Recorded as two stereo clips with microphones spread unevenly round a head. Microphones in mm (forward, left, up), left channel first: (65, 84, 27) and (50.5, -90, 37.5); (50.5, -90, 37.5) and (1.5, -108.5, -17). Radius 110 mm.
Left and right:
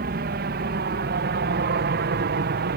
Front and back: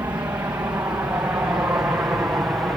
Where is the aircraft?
135° right; by 2.8 s 110° right.